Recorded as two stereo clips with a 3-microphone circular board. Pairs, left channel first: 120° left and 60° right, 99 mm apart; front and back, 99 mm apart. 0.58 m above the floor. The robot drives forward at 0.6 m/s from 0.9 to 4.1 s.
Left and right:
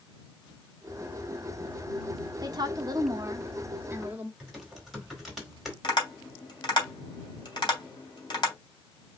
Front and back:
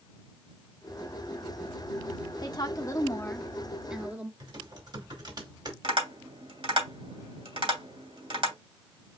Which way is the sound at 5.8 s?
160° left.